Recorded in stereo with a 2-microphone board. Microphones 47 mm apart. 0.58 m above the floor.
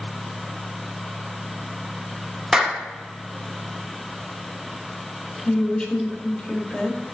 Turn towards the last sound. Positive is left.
turn(degrees=20)  # may be behind; listen again after turning